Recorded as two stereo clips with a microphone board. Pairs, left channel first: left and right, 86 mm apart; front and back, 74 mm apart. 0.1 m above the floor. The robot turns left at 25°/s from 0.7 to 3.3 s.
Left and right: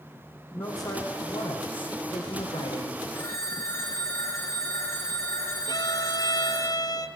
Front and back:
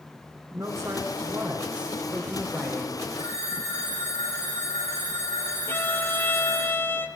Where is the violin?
55° left, 1.2 m.